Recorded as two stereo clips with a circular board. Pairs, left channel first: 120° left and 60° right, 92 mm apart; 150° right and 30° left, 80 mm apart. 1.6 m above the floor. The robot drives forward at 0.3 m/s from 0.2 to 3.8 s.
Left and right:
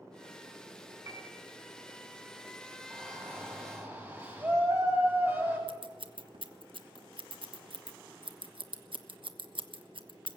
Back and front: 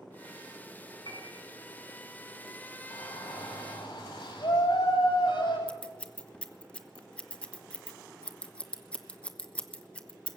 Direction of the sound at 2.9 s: 125° right.